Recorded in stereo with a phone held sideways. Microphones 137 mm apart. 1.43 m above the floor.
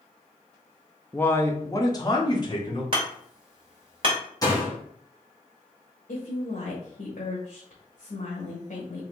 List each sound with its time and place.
1.1 s a man speaking: 10° left (ahead or behind), 0.6 m; by 2.8 s 35° left (ahead or behind), 1.6 m
2.9 s hammering: 40° right (ahead or behind), 1.9 m
4.4 s a door slam: 25° left (ahead or behind), 1.4 m
6.1 s a woman speaking: 65° left (ahead or behind), 1.3 m